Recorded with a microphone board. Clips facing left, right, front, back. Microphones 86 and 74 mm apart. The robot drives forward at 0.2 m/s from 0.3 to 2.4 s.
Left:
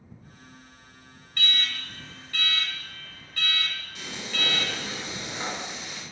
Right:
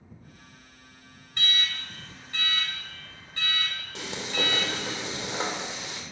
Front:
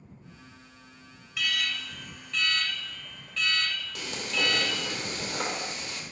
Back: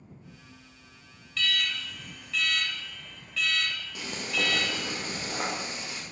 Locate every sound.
1.4 s an alarm: 60° right, 0.8 m; by 5.0 s 95° right, 0.8 m
4.0 s frying: 105° right, 1.7 m